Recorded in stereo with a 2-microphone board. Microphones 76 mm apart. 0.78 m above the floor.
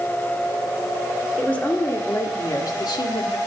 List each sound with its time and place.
1.4 s a woman speaking: 15° left (ahead or behind), 1.9 m; by 3.4 s 70° left (ahead or behind), 1.7 m